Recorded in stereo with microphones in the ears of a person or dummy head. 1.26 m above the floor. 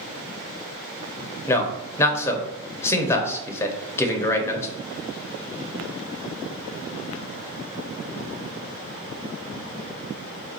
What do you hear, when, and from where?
1.5 s a man speaking: 20° left (ahead or behind), 0.8 m